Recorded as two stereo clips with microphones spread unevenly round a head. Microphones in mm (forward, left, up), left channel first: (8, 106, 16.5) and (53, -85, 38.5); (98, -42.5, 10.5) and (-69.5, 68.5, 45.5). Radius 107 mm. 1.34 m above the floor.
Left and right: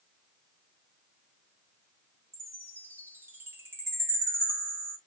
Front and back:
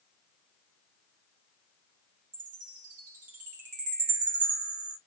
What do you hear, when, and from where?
2.3 s a chime: 160° right, 1.7 m